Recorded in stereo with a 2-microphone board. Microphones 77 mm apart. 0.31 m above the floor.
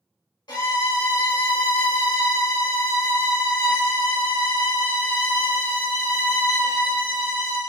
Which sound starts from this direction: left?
A violin, at 0.5 s.